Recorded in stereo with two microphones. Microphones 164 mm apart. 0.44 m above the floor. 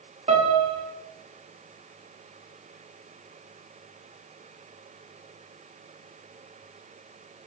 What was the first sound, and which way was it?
A piano, 40° right (ahead or behind).